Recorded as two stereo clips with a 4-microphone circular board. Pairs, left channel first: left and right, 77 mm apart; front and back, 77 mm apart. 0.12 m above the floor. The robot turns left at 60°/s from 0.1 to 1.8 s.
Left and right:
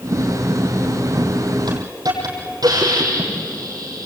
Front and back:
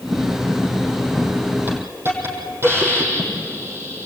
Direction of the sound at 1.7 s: 115° right.